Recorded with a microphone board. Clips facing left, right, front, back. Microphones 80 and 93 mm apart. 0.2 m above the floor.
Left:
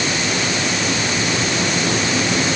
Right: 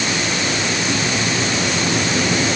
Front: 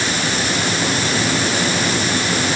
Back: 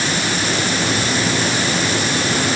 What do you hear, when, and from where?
Only background noise.